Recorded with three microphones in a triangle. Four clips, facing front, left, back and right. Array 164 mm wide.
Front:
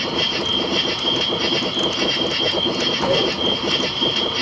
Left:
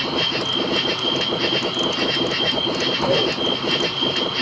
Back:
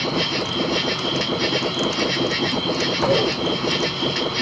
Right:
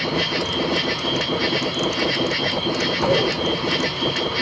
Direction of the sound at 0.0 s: 75° right.